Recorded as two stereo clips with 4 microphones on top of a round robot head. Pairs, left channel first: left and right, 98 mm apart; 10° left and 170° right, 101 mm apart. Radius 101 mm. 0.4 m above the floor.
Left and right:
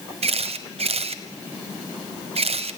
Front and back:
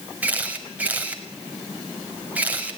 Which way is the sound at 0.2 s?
95° right.